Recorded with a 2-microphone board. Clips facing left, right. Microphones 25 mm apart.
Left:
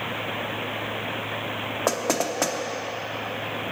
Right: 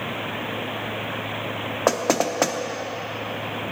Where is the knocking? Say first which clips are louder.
Right 4 dB; 15° right (ahead or behind), 0.6 m.